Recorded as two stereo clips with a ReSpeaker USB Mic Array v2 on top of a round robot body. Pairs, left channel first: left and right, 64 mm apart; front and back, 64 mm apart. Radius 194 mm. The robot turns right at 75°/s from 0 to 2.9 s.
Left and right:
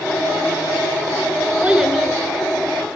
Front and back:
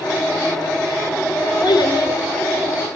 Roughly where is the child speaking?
Ahead right.